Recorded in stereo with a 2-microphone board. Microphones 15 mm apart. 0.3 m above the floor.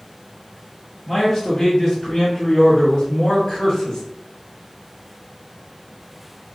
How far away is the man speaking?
About 1.7 m.